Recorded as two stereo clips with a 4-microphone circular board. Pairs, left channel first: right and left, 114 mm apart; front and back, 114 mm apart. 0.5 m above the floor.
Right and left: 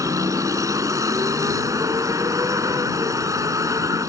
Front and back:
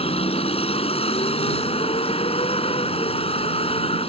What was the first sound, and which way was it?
A vehicle, 30° left.